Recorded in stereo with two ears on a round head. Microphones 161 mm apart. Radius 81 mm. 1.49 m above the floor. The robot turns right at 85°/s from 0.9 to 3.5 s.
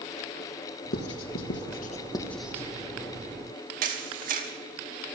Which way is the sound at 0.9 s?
55° left (ahead or behind).